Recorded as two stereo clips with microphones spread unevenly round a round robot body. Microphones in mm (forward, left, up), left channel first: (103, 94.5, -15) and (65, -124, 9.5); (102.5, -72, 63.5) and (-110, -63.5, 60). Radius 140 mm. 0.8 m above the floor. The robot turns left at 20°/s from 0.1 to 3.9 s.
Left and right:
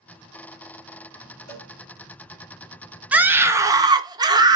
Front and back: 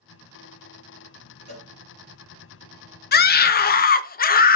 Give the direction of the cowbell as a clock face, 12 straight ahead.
4 o'clock.